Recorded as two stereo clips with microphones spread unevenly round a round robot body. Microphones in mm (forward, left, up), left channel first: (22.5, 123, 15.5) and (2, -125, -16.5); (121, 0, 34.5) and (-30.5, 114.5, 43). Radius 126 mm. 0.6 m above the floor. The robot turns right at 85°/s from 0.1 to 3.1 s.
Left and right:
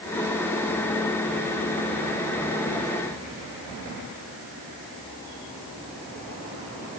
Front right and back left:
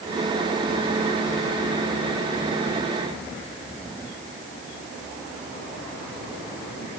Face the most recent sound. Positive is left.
No sound to turn to.